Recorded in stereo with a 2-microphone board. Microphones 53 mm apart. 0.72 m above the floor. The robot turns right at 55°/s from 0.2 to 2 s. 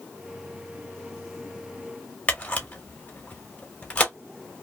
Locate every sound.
2.3 s a camera shutter: 25° left (ahead or behind), 0.9 m